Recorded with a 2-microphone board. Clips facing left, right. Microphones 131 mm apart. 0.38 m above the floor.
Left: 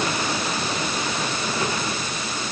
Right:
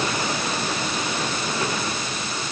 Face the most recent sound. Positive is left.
No sound to turn to.